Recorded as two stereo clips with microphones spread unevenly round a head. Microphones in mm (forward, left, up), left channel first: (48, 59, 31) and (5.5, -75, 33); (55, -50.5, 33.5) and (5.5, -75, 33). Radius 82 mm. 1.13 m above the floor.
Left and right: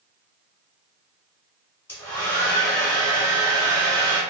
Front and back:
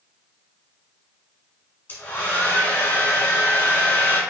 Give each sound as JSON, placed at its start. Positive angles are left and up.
{"t": 1.9, "sound": "a hair dryer", "azimuth_deg": 5, "distance_m": 1.2}